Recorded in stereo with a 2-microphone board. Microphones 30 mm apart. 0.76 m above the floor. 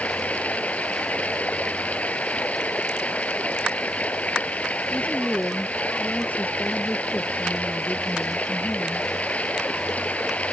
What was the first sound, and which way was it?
Running water, 55° left (ahead or behind).